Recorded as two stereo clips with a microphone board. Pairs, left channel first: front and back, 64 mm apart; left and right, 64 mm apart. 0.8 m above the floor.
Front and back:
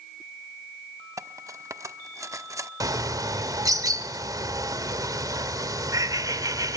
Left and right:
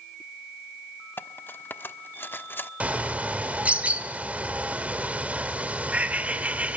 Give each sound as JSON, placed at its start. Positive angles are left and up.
{"t": 1.2, "sound": "cutlery clinking", "azimuth_deg": 145, "distance_m": 1.0}
{"t": 2.8, "sound": "a bird", "azimuth_deg": -160, "distance_m": 1.7}